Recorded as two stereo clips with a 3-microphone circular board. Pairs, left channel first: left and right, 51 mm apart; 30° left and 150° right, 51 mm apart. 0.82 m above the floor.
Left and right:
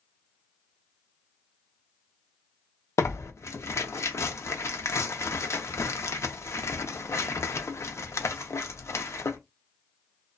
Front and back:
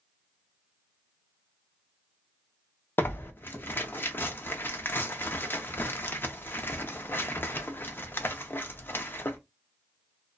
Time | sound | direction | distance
3.0 | tearing paper | 75° left | 0.5 m